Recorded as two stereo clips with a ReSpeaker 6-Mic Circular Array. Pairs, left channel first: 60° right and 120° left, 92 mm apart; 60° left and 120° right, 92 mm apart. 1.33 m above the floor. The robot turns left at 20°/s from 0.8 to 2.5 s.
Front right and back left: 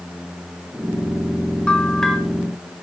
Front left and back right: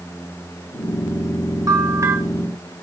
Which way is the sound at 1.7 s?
135° right.